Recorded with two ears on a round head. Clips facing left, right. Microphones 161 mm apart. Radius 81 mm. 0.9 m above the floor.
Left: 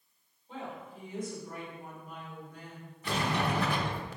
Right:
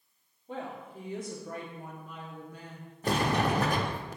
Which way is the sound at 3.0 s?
40° right (ahead or behind).